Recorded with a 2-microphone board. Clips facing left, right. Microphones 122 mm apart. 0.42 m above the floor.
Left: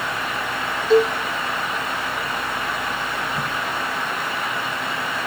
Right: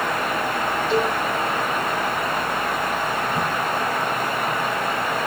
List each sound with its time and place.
0.9 s a cowbell: 40° left (ahead or behind), 6.5 m
3.4 s a crack: 20° right (ahead or behind), 9.5 m